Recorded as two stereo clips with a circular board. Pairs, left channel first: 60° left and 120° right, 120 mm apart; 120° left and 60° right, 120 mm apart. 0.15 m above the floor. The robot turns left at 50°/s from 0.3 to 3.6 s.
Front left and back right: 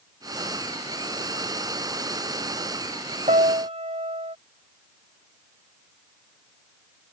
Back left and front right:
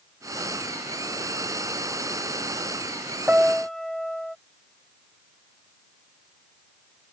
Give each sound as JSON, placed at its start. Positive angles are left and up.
{"t": 3.3, "sound": "a piano", "azimuth_deg": -135}